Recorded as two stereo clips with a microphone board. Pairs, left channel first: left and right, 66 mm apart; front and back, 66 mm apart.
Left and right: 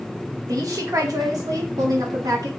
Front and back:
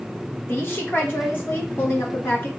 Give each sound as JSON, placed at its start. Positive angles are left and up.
{"t": 0.5, "sound": "a woman speaking", "azimuth_deg": -55, "distance_m": 1.2}